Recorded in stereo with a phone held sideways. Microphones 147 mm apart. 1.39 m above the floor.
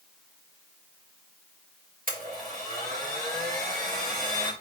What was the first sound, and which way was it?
A blender, 80° right.